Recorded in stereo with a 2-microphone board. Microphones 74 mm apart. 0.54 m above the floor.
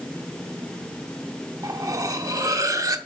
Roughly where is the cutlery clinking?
Right.